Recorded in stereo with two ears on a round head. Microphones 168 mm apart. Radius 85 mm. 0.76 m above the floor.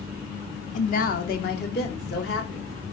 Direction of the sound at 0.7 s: 40° left (ahead or behind).